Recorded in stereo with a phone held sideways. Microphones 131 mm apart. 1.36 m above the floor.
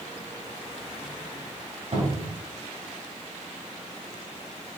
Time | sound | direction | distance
1.9 | a cupboard door | 55° right (ahead or behind) | 2 m